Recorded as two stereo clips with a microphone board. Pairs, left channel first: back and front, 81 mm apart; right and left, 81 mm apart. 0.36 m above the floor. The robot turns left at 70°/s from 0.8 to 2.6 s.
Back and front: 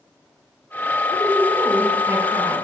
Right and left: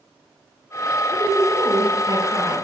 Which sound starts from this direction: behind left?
A woman speaking, at 1.1 s.